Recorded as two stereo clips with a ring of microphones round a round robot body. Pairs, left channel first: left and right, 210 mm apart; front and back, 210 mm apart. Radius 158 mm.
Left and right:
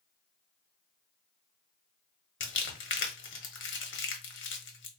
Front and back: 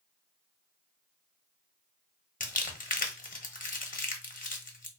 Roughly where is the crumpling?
Ahead left.